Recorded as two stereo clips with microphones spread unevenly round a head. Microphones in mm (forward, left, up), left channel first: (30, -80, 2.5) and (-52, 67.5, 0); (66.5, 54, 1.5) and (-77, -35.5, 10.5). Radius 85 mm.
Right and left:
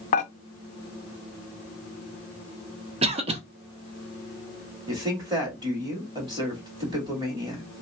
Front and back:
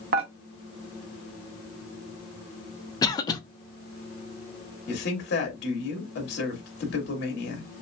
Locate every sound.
0.1 s dishes clattering: 110° right, 0.6 m
3.0 s a cough: 85° left, 0.8 m
4.9 s a woman speaking: 50° left, 2 m